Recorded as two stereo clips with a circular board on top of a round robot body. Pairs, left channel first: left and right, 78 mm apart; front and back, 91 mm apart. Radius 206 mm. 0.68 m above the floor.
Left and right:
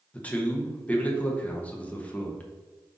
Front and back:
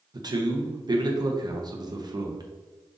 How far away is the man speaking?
About 0.9 m.